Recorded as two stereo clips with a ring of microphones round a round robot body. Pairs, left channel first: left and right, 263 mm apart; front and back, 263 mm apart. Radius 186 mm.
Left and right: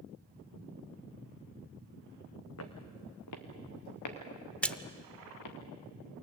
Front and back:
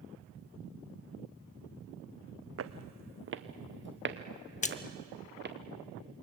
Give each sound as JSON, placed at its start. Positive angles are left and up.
{"t": 2.6, "sound": "footsteps", "azimuth_deg": 145, "distance_m": 1.4}
{"t": 4.6, "sound": "a splash", "azimuth_deg": 10, "distance_m": 0.9}